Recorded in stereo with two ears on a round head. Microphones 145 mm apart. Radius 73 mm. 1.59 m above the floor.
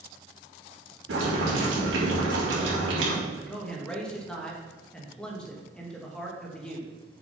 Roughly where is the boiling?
Right.